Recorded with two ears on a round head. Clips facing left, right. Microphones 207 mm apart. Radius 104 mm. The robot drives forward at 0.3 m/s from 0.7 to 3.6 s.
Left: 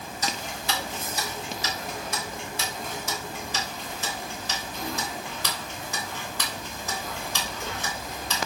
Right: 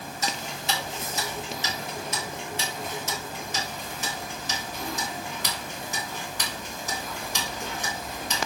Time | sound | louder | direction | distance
0.2 | ticking | even | 25° right (ahead or behind) | 2 m